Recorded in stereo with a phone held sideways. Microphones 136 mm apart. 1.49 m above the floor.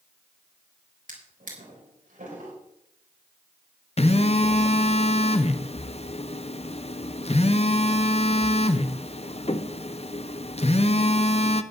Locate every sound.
1.1 s a drawer: 80° right, 4 m
4.0 s a phone buzzing: 50° left (ahead or behind), 0.7 m